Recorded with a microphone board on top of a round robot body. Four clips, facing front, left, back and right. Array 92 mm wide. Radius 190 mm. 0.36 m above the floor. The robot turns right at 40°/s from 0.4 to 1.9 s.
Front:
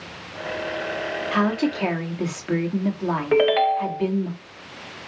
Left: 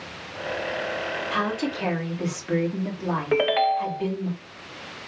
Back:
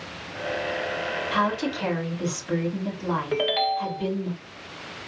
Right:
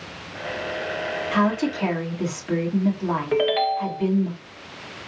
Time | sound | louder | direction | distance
1.3 | a woman speaking | right 6 dB, front 3 dB | 25° right | 1.7 m
3.3 | a ringtone | left 1 dB, front 8 dB | 30° left | 0.7 m